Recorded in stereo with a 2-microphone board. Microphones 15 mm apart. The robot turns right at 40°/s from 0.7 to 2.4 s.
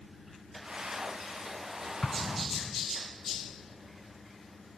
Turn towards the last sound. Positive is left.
turn(degrees=35)  # may be behind; listen again after turning